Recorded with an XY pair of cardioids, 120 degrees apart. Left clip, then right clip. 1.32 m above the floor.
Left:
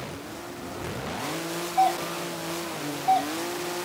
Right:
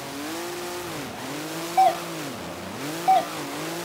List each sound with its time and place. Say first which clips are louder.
1.8 s a doorbell: right 4 dB; 45° right, 0.9 m